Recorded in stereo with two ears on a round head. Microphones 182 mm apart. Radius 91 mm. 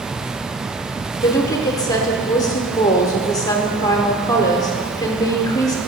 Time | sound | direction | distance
1.2 | a woman speaking | 15° left (ahead or behind) | 0.8 m